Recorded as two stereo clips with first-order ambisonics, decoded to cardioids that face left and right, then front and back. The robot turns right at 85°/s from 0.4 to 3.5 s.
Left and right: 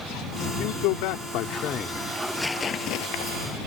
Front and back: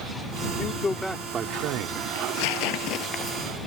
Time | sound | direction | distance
0.6 | a man speaking | 50° left | ?
2.1 | tearing paper | 20° right | ?